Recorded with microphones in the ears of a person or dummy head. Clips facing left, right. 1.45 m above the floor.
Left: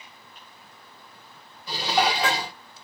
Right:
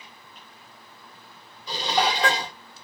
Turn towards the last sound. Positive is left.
turn(degrees=5)  # may be behind; listen again after turning